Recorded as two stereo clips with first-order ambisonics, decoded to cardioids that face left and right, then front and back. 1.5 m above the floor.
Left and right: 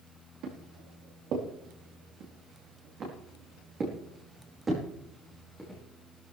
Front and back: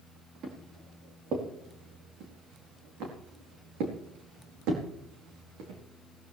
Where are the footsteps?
125° right, 5 m; by 5.8 s 175° right, 5 m.